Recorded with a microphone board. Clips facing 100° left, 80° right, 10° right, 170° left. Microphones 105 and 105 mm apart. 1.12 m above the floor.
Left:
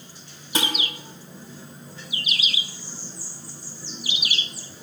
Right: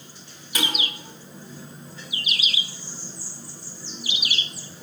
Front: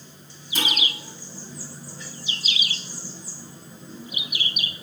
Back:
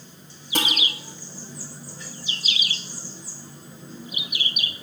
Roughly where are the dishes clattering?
Behind.